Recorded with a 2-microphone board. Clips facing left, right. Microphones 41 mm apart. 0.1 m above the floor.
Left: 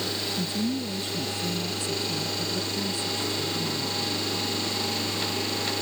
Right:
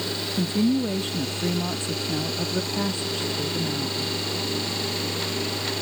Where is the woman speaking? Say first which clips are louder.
Right 9 dB; 40° right (ahead or behind).